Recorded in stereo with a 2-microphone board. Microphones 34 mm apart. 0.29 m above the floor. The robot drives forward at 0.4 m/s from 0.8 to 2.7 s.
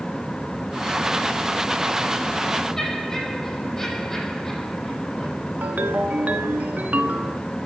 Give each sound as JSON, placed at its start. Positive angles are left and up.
{"t": 2.8, "sound": "laughter", "side_deg": 10, "distance_m": 8.0}
{"t": 5.6, "sound": "a ringtone", "side_deg": -60, "distance_m": 1.1}